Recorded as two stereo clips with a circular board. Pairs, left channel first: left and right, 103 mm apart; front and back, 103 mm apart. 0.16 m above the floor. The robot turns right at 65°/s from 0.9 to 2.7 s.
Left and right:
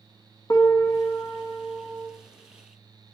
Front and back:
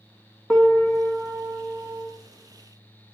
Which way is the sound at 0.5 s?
75° left.